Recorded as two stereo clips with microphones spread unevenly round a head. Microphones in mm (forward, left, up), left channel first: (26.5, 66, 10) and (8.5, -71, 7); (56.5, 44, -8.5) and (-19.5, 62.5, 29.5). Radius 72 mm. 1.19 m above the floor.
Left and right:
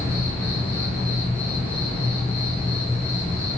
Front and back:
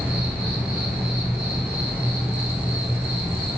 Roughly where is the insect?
Behind left.